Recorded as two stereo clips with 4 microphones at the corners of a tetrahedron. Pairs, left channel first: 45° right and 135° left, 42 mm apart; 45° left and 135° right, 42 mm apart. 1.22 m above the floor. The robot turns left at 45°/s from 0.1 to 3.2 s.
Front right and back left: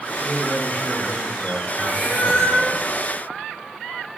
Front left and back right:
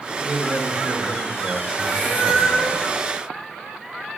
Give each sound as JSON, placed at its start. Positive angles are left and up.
{"t": 0.2, "sound": "a man speaking", "azimuth_deg": -60, "distance_m": 1.7}
{"t": 1.8, "sound": "a cat meowing", "azimuth_deg": -75, "distance_m": 1.5}